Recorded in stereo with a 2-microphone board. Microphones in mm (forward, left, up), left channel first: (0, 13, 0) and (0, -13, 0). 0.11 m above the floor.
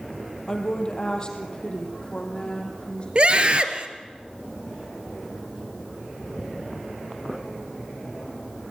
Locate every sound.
0.5 s a woman speaking: 30° left (ahead or behind), 3 m; by 3.0 s 35° left (ahead or behind), 5.5 m
3.1 s a scream: 40° right (ahead or behind), 1.8 m